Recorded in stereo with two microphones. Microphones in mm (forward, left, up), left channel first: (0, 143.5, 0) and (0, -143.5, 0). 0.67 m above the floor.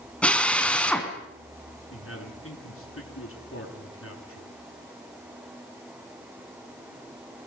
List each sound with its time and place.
0.2 s a drill: 5° left (ahead or behind), 3.5 m
1.9 s a man speaking: 50° left (ahead or behind), 8 m